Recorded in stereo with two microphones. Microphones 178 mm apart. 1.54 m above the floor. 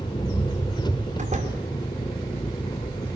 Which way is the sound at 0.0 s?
25° left (ahead or behind).